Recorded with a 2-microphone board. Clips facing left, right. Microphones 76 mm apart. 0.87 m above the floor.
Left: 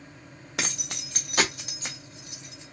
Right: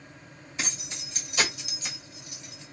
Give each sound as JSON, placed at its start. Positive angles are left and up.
{"t": 0.6, "sound": "keys jangling", "side_deg": 75, "distance_m": 0.8}